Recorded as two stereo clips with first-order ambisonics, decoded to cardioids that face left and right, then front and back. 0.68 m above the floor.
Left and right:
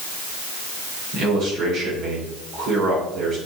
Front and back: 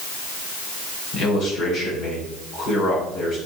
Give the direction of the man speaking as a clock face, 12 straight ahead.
2 o'clock.